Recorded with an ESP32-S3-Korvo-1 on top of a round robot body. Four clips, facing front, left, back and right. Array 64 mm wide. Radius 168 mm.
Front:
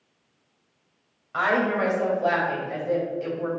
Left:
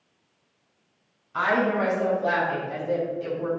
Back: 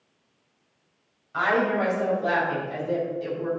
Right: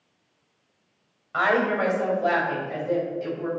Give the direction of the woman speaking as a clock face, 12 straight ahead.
2 o'clock.